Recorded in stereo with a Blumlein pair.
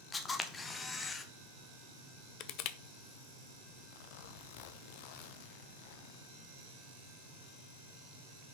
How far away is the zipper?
About 0.6 m.